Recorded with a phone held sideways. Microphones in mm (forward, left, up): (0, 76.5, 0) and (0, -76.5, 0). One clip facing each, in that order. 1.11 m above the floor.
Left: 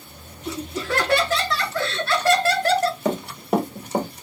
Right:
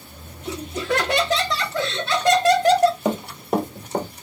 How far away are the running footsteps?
About 1.2 m.